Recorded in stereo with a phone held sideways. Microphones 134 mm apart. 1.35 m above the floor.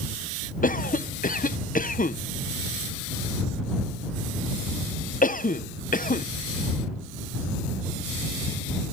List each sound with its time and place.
0.6 s a cough: 85° left